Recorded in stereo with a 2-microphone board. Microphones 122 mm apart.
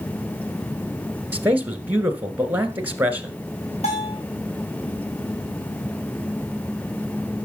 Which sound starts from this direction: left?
A bell, at 3.8 s.